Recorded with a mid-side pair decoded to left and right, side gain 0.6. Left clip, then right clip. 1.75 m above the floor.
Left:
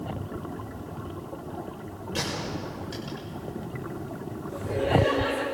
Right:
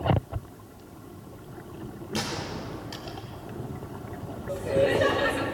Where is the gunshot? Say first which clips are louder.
Left 1 dB; 20° right, 6 m.